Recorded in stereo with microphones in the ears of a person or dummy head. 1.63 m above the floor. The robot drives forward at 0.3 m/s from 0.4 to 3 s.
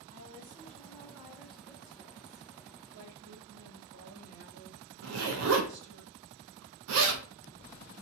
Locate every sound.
0.1 s a woman speaking: 35° right (ahead or behind), 0.9 m; by 2.5 s 20° right (ahead or behind), 1.4 m
2.9 s a woman speaking: 60° right (ahead or behind), 1.1 m
5.0 s a zipper: 85° right, 0.6 m